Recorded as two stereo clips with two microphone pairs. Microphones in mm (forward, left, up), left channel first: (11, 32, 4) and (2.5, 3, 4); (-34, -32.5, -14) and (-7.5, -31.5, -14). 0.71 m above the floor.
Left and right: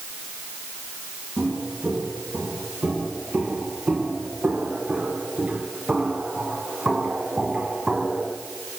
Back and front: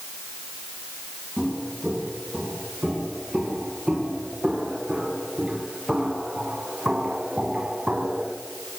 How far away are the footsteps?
About 9 m.